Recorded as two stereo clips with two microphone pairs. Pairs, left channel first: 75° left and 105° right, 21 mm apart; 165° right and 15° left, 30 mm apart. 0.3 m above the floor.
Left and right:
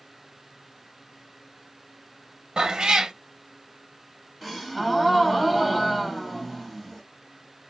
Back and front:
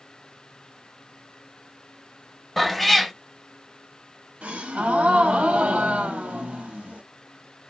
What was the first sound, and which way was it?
A cat meowing, 85° right.